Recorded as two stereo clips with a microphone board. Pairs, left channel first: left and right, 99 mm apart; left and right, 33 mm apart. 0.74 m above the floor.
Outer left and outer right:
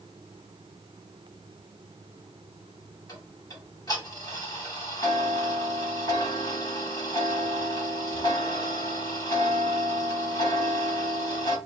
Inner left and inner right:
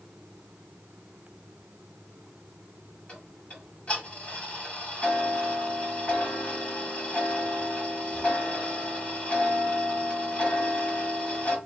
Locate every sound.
3.1 s ticking: 35° left (ahead or behind), 2.5 m